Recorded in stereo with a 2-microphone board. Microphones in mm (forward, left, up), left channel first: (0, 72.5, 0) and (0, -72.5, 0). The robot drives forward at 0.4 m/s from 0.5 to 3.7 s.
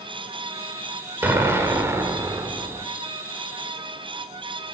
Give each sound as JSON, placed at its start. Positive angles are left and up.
{"t": 1.2, "sound": "an explosion", "side_deg": -15, "distance_m": 2.0}